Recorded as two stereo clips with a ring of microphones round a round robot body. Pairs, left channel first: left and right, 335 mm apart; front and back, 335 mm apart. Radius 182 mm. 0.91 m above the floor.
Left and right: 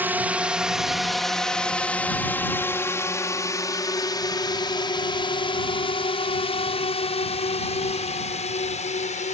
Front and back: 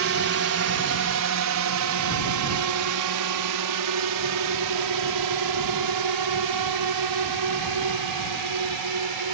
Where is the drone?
170° right; by 9.3 s 160° left.